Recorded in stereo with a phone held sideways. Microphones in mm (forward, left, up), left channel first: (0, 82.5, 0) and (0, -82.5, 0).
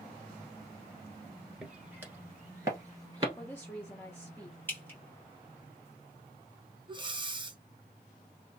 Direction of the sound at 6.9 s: 30° right (ahead or behind).